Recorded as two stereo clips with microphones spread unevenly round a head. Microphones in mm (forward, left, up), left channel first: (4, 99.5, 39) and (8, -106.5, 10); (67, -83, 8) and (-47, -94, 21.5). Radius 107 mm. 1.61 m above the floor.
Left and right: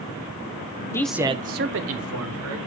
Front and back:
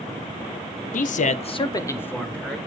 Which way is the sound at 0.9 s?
15° left.